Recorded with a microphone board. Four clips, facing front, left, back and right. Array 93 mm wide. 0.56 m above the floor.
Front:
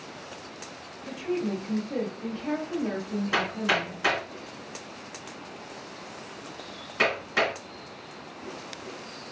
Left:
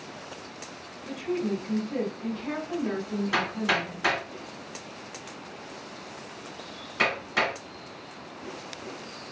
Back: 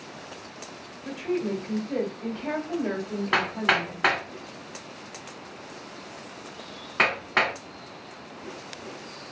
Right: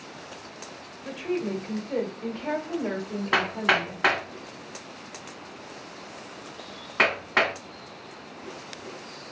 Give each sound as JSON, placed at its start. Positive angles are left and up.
{"t": 1.1, "sound": "a woman speaking", "azimuth_deg": -125, "distance_m": 1.9}
{"t": 3.3, "sound": "hammering", "azimuth_deg": -135, "distance_m": 1.8}